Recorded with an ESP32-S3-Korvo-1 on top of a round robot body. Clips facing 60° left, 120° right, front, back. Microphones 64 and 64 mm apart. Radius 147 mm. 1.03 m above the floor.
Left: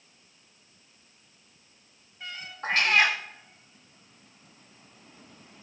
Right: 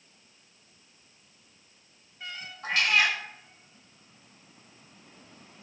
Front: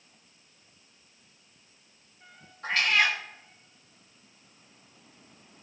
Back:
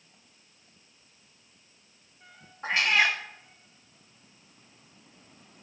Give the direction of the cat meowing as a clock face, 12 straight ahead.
8 o'clock.